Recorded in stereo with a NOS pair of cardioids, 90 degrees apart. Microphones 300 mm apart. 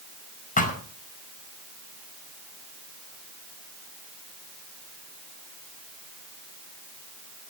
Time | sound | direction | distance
0.6 | a thud | 25° left | 5 m